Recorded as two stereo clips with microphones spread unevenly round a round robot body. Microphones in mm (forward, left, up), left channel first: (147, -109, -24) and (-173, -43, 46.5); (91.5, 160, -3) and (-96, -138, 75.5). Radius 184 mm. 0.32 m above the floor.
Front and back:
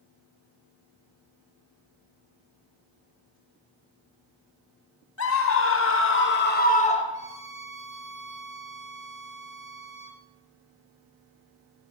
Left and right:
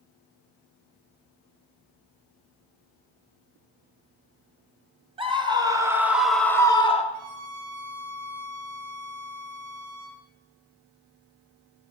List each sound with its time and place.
5.2 s a scream: 40° right, 2.5 m; by 7.0 s 30° left, 1.5 m
7.1 s a violin: 110° right, 2 m